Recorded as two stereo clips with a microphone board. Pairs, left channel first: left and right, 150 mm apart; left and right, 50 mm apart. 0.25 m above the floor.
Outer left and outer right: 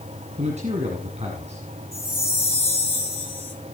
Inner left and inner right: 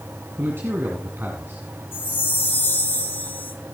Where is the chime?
45° left (ahead or behind), 4 m.